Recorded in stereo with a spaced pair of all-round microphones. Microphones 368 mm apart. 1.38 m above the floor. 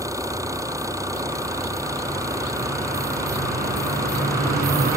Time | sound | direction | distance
0.0 | an engine running | 10° right (ahead or behind) | ?